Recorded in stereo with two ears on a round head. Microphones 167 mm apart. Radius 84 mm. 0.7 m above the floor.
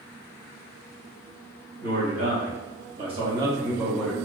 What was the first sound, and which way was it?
A man speaking, 50° right (ahead or behind).